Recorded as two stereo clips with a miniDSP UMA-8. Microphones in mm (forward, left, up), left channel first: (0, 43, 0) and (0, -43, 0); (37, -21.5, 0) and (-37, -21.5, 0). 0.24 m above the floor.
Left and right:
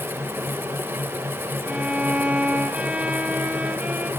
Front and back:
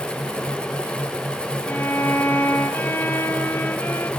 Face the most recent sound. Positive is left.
turn(degrees=-30)